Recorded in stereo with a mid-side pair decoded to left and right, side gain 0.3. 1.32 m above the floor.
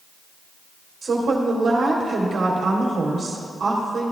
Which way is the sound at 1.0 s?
65° right.